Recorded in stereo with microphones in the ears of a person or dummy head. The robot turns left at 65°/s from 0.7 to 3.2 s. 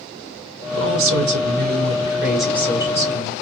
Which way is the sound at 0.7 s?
70° right.